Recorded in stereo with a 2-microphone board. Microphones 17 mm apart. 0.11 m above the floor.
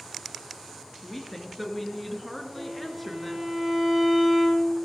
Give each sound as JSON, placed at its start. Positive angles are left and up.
{"t": 1.0, "sound": "a woman speaking", "side_deg": 5, "distance_m": 1.4}
{"t": 2.5, "sound": "a violin", "side_deg": -80, "distance_m": 4.5}